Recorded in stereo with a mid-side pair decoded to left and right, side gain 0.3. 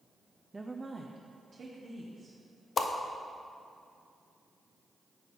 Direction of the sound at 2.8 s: 65° left.